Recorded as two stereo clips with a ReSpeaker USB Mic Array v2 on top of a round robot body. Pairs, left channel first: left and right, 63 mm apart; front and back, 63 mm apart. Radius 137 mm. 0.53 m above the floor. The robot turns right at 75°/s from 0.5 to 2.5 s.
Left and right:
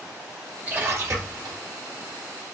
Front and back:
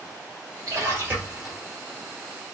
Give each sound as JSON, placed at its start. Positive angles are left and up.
{"t": 0.7, "sound": "a splash", "azimuth_deg": -160, "distance_m": 1.9}